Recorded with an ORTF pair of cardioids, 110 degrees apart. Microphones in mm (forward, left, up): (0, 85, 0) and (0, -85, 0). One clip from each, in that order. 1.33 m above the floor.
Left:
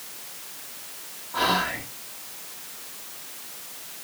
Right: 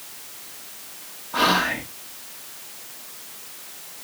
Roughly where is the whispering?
Ahead right.